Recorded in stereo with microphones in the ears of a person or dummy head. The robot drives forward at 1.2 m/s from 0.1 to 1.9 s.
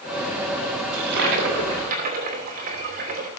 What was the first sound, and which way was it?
A toilet flushing, 70° right (ahead or behind).